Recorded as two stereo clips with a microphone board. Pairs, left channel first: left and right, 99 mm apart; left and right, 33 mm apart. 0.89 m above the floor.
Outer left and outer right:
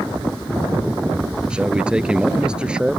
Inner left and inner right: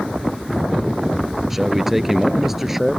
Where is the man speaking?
10° right (ahead or behind).